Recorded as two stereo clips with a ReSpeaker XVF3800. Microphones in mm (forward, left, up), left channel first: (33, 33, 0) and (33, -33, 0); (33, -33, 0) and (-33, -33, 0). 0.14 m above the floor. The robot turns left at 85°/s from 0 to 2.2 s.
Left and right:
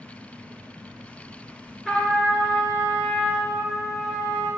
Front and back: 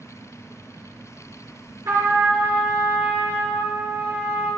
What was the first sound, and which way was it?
A trumpet, straight behind.